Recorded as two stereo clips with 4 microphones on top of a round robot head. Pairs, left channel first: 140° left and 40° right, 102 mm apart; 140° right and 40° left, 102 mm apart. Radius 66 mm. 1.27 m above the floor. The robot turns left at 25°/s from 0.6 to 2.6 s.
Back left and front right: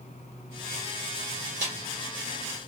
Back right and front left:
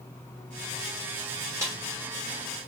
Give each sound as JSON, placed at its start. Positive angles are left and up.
{"t": 1.6, "sound": "a snare drum", "azimuth_deg": -25, "distance_m": 2.5}